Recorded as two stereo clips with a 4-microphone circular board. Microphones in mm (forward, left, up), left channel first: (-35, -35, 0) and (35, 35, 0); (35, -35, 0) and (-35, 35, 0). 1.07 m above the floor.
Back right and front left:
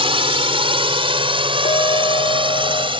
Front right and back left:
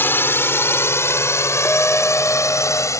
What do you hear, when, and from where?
0.0 s a drone: 25° left; by 3.0 s 15° left
1.6 s a clink: 115° right